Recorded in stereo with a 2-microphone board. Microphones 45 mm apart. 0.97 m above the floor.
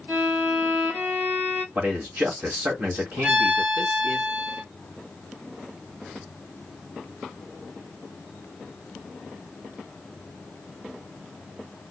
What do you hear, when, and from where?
0.1 s a violin: 45° right (ahead or behind), 3 m
1.8 s a man speaking: 50° right (ahead or behind), 1.7 m
3.2 s a violin: 30° right (ahead or behind), 3 m